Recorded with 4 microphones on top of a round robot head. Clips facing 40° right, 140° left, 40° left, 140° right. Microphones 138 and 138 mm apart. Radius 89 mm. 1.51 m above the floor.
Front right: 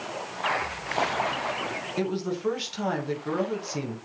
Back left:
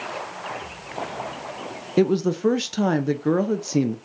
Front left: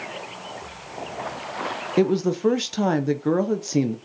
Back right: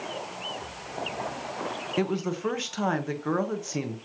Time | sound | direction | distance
2.0 | a woman speaking | 100° left | 0.9 m